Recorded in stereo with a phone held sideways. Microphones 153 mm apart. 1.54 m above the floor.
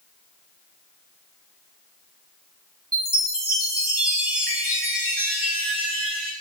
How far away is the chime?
About 5.5 m.